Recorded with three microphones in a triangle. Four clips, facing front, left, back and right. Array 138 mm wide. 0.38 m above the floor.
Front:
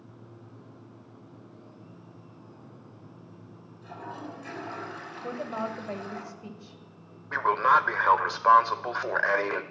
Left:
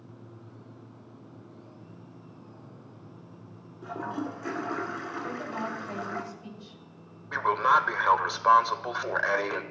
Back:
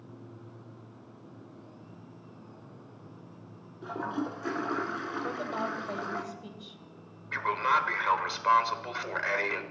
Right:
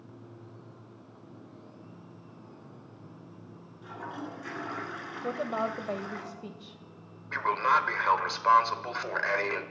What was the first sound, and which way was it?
A toilet flushing, 145° left.